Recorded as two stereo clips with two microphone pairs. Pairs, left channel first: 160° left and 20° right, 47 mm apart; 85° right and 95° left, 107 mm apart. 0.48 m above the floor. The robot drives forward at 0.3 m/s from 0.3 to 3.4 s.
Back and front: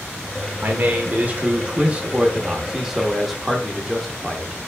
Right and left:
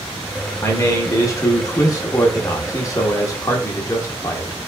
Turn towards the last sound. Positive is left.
turn(degrees=-110)